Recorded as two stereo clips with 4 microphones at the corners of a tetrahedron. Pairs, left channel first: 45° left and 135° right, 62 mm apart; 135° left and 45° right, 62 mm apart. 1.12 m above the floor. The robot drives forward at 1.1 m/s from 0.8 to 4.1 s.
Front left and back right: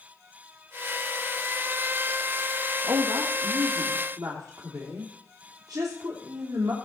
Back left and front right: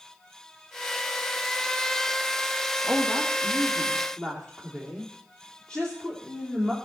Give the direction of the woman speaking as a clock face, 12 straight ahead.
4 o'clock.